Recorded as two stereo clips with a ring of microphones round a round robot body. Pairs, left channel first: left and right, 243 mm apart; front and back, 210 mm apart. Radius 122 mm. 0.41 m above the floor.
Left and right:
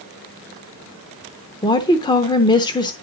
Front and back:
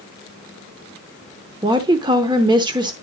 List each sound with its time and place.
1.6 s a woman speaking: 140° left, 0.8 m